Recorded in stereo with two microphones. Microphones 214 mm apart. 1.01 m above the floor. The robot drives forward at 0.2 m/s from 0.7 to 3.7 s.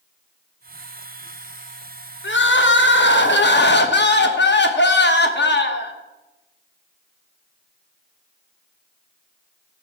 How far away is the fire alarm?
I don't hear a fire alarm.